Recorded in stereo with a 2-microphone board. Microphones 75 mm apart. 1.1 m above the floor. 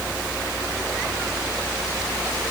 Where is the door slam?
I don't hear a door slam.